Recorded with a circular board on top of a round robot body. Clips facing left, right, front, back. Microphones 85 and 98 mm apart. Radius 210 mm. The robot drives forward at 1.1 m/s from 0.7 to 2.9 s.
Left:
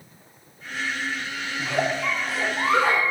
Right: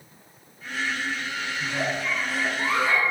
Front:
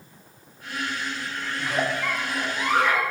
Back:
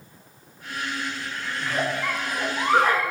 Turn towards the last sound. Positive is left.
turn(degrees=130)